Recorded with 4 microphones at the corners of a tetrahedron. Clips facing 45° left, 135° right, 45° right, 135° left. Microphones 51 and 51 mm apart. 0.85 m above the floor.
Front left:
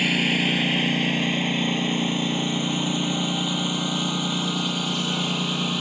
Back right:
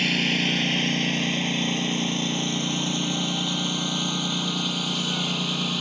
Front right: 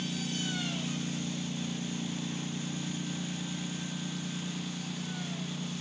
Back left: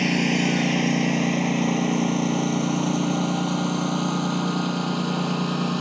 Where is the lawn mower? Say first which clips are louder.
Front left 2 dB, back left 14 dB; 125° left.